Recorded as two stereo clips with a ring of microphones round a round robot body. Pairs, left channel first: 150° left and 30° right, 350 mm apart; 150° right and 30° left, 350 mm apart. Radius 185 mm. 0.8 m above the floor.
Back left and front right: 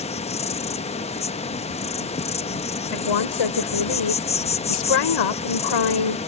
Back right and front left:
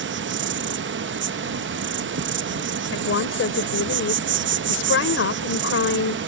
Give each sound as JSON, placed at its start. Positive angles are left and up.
{"t": 0.0, "sound": "an insect", "azimuth_deg": 80}
{"t": 2.9, "sound": "a woman speaking", "azimuth_deg": 155}